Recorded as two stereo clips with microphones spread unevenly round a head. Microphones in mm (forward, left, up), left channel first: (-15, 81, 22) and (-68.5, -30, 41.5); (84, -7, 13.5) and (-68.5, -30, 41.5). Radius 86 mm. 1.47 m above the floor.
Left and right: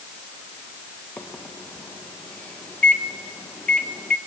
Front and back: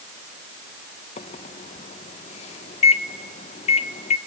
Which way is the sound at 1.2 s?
25° right.